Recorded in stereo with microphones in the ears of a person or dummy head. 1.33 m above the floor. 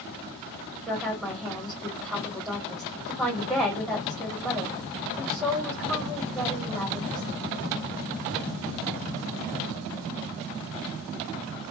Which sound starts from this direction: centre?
A woman speaking, at 0.9 s.